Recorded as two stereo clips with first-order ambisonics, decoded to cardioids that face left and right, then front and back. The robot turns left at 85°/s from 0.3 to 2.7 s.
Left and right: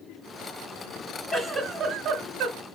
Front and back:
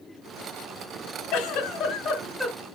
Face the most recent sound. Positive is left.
turn(degrees=-105)